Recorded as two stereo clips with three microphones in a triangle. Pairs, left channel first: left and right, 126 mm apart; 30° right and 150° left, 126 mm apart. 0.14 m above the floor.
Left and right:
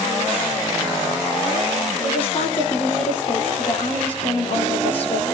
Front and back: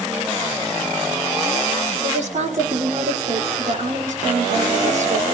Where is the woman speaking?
130° left, 4.5 m.